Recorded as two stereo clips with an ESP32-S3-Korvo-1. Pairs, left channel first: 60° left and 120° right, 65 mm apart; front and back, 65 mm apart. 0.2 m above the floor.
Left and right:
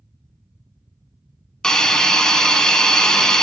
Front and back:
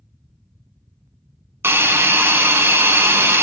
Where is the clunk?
No clunk in this recording.